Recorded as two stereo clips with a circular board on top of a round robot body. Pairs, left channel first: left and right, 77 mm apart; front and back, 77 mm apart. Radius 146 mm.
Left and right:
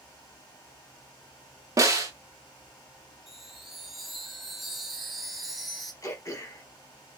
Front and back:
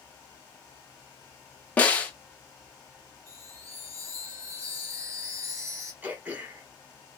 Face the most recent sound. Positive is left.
turn(degrees=120)